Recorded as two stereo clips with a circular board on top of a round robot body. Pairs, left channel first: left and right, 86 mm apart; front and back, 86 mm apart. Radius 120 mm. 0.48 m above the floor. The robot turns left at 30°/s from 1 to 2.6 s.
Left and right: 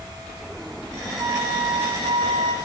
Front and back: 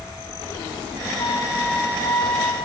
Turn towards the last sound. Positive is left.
turn(degrees=-85)